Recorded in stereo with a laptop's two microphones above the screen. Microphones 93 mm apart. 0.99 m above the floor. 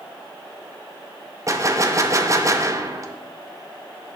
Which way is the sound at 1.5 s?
35° right (ahead or behind).